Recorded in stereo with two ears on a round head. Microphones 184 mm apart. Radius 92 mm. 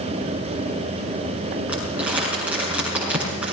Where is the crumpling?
5° right (ahead or behind), 7 m.